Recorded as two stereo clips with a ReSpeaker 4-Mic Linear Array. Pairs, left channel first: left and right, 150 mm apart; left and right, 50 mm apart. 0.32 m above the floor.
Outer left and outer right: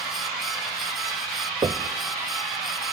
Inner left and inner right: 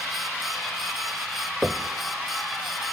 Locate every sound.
1.6 s knocking: 30° right (ahead or behind), 0.7 m